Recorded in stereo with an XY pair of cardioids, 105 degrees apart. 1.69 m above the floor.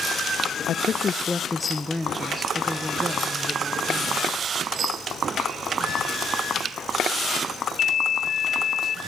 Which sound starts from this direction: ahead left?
A woman speaking, at 0.7 s.